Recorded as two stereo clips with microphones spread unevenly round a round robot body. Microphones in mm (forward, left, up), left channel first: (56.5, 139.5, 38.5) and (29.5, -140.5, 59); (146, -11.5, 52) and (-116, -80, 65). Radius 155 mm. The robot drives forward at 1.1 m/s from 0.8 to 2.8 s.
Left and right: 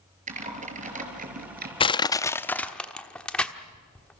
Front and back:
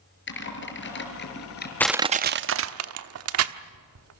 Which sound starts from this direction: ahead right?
Typing on a keyboard, at 0.3 s.